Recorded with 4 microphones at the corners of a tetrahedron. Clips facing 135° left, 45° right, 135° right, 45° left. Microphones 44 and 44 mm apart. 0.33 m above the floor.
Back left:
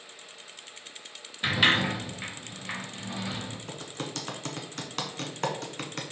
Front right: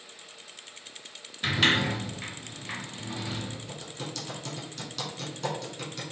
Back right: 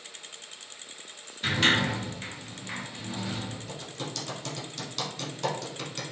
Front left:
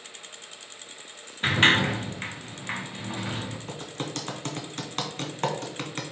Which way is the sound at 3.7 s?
95° left.